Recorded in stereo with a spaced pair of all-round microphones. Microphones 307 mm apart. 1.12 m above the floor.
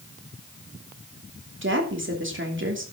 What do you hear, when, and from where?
1.6 s a woman speaking: 40° right (ahead or behind), 3 m